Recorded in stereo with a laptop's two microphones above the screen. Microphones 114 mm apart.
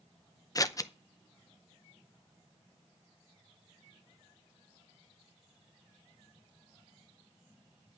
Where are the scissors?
30° left (ahead or behind), 0.6 m.